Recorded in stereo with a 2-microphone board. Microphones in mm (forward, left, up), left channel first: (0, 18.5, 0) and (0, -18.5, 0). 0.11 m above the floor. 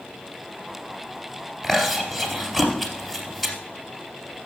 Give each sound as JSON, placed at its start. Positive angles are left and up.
{"t": 1.6, "sound": "chewing", "side_deg": 5, "distance_m": 3.0}